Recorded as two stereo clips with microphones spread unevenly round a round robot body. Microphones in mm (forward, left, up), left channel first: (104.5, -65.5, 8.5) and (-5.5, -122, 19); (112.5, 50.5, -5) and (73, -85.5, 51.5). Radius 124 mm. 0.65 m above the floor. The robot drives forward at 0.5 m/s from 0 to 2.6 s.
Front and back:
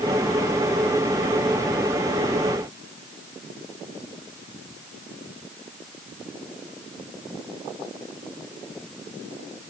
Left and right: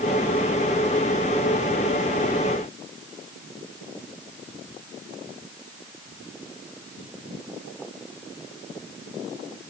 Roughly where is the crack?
No crack in this recording.